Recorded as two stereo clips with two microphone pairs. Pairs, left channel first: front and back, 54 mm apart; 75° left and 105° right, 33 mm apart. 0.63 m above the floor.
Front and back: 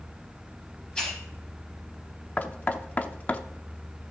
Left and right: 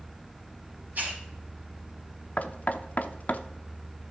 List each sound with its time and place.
0.9 s a hiss: 70° right, 5 m
2.4 s knocking: 55° left, 0.7 m